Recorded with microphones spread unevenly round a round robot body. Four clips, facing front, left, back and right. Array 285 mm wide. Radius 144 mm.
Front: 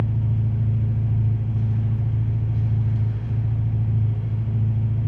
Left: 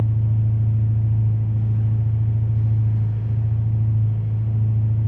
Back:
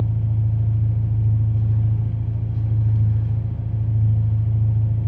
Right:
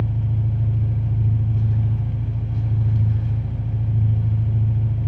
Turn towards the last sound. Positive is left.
turn(degrees=-95)